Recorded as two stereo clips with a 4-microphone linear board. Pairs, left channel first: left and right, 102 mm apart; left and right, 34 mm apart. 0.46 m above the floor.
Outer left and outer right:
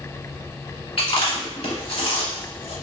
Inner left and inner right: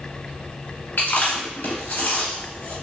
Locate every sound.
1.0 s chewing: 80° left, 1.5 m